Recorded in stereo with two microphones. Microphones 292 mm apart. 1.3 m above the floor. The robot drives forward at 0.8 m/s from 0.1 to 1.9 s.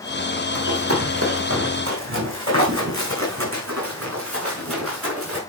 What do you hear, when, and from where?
0.6 s running footsteps: 50° right (ahead or behind), 4 m